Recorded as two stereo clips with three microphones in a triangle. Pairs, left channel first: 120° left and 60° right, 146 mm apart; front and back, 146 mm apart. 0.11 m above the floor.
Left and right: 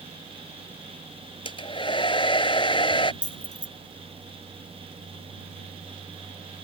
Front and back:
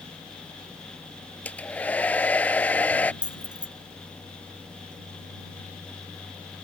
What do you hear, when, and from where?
1.4 s a hair dryer: 75° left
3.2 s keys jangling: 95° left